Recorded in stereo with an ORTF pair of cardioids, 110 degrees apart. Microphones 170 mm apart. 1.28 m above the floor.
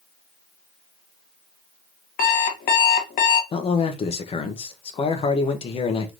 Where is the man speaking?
35° left, 1.1 m.